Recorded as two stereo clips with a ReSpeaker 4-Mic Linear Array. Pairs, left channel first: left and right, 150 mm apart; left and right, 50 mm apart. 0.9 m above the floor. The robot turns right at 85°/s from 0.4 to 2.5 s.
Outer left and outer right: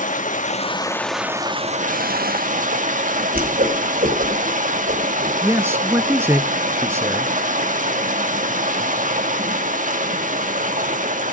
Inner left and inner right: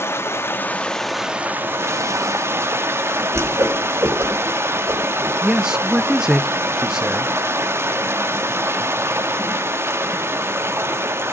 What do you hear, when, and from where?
0.0 s running water: 120° left, 1.3 m; by 11.3 s 65° right, 1.3 m
3.3 s a whoosh: 80° right, 4.5 m
5.4 s a man speaking: 15° right (ahead or behind), 0.8 m